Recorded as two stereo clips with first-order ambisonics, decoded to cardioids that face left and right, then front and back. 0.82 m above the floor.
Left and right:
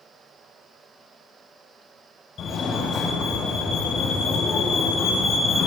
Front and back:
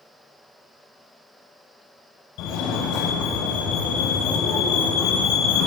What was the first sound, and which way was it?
A fire alarm, 30° left.